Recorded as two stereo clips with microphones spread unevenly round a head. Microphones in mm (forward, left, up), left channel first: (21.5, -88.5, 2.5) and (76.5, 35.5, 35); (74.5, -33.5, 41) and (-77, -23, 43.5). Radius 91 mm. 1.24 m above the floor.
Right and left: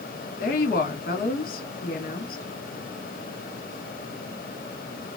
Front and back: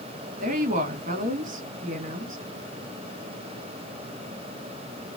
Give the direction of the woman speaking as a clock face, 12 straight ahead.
5 o'clock.